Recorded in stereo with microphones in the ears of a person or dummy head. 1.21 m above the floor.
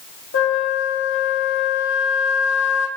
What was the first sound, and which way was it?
A flute, 75° left (ahead or behind).